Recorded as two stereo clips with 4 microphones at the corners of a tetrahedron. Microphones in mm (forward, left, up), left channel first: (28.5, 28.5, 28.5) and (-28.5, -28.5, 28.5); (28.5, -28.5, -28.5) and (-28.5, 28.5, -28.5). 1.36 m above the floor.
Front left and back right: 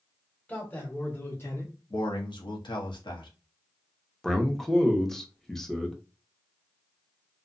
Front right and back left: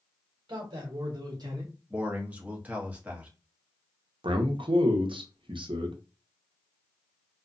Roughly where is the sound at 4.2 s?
Behind left.